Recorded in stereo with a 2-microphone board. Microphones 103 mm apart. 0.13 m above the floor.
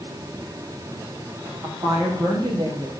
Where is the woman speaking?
40° right (ahead or behind), 6 m.